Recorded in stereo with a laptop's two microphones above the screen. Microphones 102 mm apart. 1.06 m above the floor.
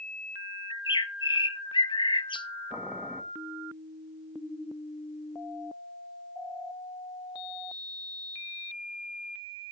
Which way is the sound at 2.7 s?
10° right (ahead or behind).